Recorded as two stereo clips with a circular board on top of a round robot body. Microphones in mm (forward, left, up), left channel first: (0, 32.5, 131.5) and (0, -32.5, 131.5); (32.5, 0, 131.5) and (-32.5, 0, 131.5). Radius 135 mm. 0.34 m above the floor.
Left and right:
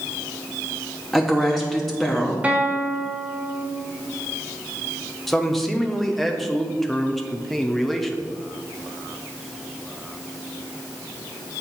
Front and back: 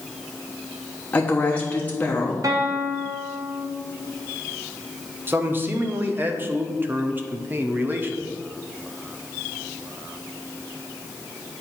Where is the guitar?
155° right, 0.9 m.